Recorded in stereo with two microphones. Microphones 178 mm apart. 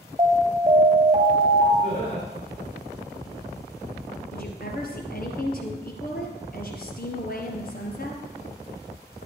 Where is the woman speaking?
60° left (ahead or behind), 2.5 m.